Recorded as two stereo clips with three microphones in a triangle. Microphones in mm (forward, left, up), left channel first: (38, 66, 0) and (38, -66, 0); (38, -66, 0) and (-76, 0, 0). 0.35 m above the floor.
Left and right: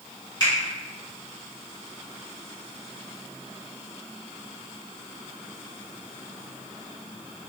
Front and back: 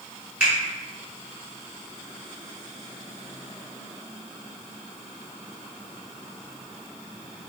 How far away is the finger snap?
About 1.5 m.